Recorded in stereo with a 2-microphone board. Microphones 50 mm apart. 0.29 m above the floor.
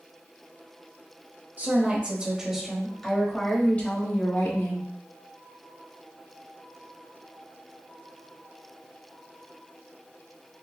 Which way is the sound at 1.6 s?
35° right (ahead or behind).